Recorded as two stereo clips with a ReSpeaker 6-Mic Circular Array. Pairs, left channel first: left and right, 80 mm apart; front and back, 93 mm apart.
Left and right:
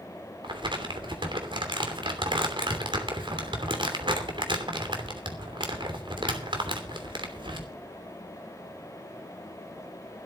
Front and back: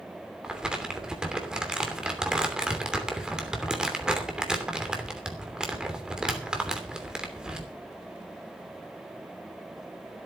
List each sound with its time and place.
0.4 s crumpling: 100° right, 3 m